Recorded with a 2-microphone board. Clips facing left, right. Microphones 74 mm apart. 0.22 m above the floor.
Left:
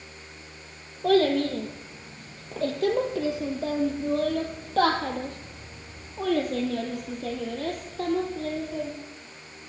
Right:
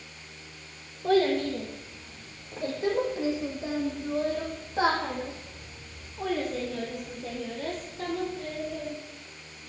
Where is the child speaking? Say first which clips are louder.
Left 3 dB; 65° left (ahead or behind), 4 m; by 8.9 s 55° left (ahead or behind), 4.5 m.